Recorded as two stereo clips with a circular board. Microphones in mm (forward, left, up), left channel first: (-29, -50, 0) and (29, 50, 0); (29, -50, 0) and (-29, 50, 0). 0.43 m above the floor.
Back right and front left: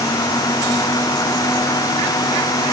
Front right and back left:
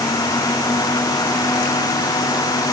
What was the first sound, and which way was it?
Only background noise.